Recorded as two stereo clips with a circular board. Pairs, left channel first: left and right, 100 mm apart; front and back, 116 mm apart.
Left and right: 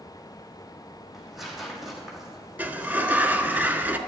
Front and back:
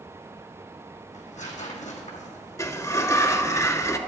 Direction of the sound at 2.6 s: 35° right.